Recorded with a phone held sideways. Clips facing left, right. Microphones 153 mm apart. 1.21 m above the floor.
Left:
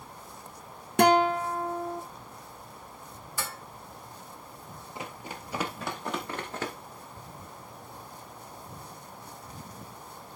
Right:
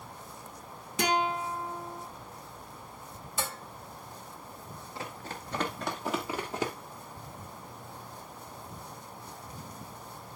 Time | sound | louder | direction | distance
1.0 | a guitar | left 8 dB | 65° left (ahead or behind) | 0.9 m
3.4 | dishes clattering | right 2 dB | 20° right (ahead or behind) | 1.3 m
5.0 | running footsteps | left 1 dB | 20° left (ahead or behind) | 1.6 m